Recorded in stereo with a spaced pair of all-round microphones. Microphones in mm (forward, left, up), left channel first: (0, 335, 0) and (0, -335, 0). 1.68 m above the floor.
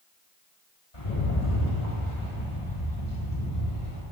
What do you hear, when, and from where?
0.9 s a rattle: 75° left (ahead or behind), 4 m